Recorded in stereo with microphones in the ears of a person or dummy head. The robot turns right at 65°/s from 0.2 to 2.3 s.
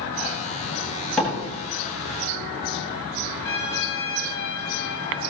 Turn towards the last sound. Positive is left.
turn(degrees=70)  # may be behind; listen again after turning